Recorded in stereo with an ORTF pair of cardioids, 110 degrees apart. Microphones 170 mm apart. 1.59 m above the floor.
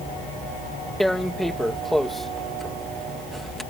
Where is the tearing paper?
Straight ahead.